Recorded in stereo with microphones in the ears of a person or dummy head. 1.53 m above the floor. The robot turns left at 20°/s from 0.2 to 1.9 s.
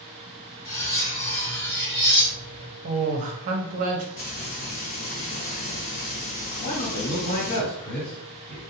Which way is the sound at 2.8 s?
40° right (ahead or behind).